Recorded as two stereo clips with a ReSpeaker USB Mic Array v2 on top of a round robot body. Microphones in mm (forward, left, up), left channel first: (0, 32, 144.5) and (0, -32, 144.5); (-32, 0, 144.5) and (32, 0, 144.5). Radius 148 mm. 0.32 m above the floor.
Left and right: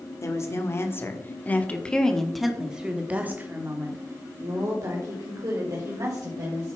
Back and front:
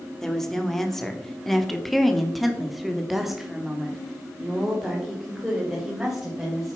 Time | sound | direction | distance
0.2 | a woman speaking | 100° left | 1.9 m